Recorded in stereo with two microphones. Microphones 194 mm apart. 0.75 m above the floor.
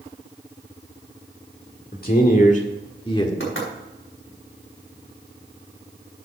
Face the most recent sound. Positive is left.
turn(degrees=80)